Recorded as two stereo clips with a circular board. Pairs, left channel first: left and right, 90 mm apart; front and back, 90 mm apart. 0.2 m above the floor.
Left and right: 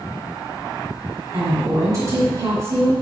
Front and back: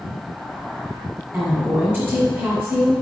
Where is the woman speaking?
125° right, 2 m.